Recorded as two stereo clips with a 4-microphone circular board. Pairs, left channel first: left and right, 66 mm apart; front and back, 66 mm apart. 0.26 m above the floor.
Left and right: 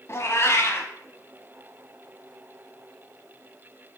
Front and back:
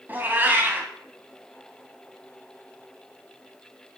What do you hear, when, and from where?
0.1 s a cat meowing: 125° left, 0.9 m